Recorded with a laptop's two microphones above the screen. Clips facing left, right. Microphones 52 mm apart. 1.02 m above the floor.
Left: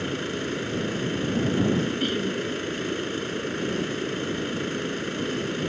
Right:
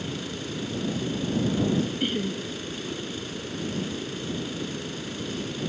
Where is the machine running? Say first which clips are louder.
Left 5 dB; 40° left (ahead or behind).